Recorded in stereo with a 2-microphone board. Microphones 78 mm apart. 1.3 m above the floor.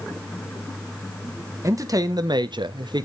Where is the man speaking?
45° right (ahead or behind), 1.0 m; by 3.0 s 65° right (ahead or behind), 0.6 m.